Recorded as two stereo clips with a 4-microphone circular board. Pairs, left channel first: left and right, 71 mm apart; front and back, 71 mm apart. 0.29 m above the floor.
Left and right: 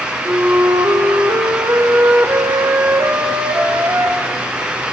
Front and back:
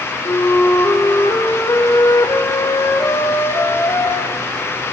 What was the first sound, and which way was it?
A flute, 40° right.